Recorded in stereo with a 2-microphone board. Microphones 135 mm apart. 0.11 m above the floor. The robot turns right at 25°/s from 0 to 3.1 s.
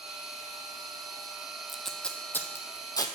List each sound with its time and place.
1.7 s tape being pulled: centre (ahead or behind), 0.8 m; by 3.1 s 30° left (ahead or behind), 0.8 m